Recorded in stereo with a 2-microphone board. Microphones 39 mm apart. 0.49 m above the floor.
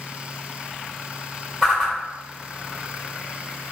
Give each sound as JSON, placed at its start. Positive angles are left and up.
{"t": 1.6, "sound": "a whoosh", "side_deg": 10, "distance_m": 1.3}